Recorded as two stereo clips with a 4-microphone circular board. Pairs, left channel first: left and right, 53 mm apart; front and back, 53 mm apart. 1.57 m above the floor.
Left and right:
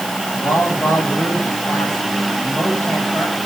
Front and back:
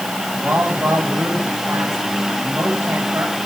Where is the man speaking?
125° left, 9 m.